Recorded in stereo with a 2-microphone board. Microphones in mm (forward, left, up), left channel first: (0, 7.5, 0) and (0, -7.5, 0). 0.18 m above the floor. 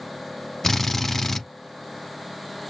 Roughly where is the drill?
Left.